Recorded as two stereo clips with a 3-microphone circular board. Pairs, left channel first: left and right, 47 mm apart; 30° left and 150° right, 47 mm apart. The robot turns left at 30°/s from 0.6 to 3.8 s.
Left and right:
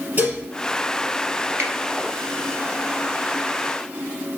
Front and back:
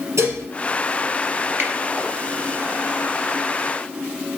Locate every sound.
0.2 s dishes clattering: 140° right, 3 m
1.6 s a finger snap: 120° right, 2.5 m; by 1.7 s 125° right, 2.5 m